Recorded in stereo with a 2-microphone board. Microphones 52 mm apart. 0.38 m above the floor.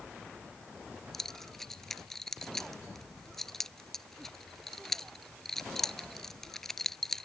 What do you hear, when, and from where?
1.1 s keys jangling: 10° left (ahead or behind)